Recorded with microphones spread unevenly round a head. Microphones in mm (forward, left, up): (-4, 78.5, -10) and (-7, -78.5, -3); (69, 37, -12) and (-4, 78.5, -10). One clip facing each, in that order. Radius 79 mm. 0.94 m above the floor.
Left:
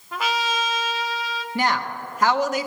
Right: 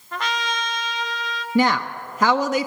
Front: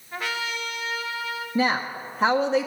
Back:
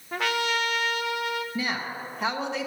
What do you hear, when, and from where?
0.1 s a trumpet: 175° left, 0.5 m
1.6 s a woman speaking: 100° right, 0.5 m